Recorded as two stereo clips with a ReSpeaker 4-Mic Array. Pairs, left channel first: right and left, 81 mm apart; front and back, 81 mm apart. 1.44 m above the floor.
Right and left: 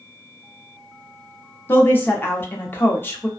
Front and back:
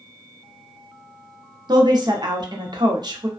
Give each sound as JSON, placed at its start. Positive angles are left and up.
{"t": 1.7, "sound": "a woman speaking", "azimuth_deg": -155, "distance_m": 0.7}